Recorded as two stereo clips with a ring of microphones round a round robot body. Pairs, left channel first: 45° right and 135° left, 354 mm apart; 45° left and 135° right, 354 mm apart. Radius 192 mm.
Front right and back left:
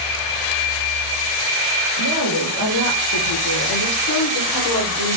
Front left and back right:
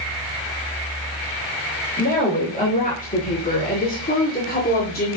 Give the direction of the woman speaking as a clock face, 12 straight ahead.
1 o'clock.